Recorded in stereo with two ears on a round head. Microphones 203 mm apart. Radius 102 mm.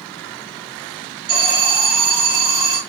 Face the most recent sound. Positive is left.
turn(degrees=-30)  # may be behind; listen again after turning